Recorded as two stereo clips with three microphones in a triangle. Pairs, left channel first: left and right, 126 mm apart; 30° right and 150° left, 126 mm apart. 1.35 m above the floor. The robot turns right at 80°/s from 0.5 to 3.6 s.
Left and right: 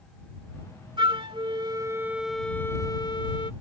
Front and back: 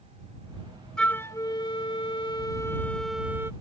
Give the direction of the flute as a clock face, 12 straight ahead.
4 o'clock.